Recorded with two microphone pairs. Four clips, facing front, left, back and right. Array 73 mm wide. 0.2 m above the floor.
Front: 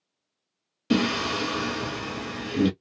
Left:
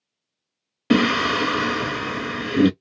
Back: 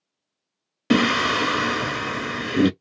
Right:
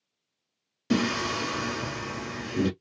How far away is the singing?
About 0.5 m.